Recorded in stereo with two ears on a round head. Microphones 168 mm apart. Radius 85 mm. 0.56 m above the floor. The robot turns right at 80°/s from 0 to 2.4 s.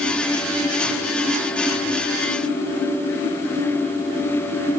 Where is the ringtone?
No ringtone in this recording.